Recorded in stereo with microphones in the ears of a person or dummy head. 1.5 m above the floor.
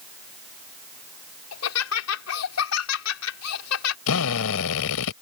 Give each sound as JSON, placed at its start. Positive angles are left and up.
{"t": 1.5, "sound": "laughter", "side_deg": 85}
{"t": 4.1, "sound": "a drill", "side_deg": 85}